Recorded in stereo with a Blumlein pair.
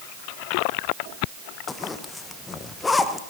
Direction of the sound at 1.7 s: 15° left.